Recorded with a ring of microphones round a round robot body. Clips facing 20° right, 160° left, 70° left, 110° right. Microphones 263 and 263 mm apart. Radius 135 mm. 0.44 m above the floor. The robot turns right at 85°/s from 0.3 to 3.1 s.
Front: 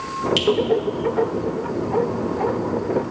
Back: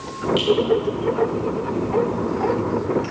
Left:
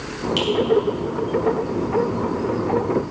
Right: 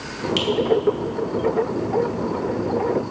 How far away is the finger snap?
About 3 m.